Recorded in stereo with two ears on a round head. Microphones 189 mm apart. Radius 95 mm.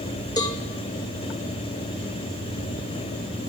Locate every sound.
0.4 s a cowbell: 20° left (ahead or behind), 2 m